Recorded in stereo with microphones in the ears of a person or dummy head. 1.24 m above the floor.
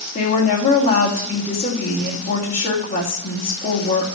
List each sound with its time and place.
0.1 s a woman speaking: 45° left (ahead or behind), 2.5 m